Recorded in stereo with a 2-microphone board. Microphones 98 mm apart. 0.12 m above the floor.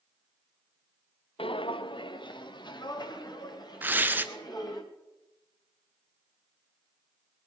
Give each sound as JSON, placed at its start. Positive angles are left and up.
{"t": 1.4, "sound": "footsteps", "side_deg": 65, "distance_m": 0.6}
{"t": 3.8, "sound": "tearing paper", "side_deg": -20, "distance_m": 0.8}